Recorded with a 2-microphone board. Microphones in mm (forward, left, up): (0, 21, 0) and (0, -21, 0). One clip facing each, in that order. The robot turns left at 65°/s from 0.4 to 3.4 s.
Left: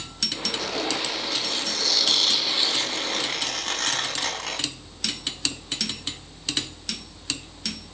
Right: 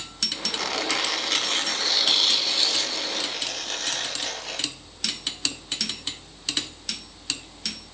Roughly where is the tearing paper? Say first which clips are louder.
Right 2 dB; right.